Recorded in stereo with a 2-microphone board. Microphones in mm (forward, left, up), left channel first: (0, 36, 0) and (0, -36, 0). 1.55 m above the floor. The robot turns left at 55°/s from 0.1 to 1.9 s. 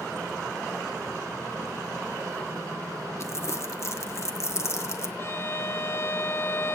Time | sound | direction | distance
3.2 | crumpling | 40° left (ahead or behind) | 1.2 m
5.2 | a violin | 35° left (ahead or behind) | 0.7 m